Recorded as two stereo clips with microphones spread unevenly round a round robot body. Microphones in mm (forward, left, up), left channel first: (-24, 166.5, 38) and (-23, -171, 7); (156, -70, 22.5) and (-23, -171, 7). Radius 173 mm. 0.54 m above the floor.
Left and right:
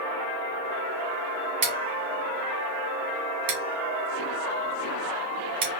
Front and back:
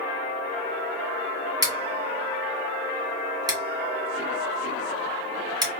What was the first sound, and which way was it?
Scissors, 80° right.